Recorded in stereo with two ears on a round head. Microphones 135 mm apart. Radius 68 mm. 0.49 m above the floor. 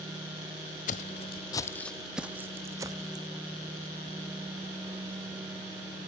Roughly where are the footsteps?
Left.